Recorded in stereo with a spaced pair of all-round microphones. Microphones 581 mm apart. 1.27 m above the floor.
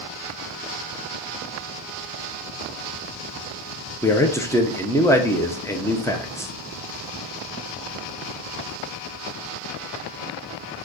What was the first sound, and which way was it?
A man speaking, 5° left (ahead or behind).